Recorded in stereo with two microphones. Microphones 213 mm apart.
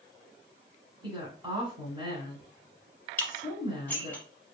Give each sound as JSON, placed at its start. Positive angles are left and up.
{"t": 1.0, "sound": "a woman speaking", "side_deg": -20, "distance_m": 1.3}
{"t": 3.2, "sound": "dishes clattering", "side_deg": 10, "distance_m": 0.8}